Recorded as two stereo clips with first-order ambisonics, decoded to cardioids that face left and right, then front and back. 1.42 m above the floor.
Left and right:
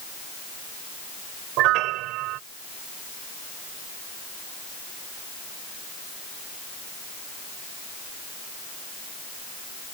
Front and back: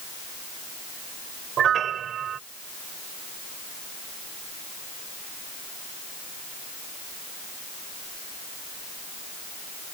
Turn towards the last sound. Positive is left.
turn(degrees=-120)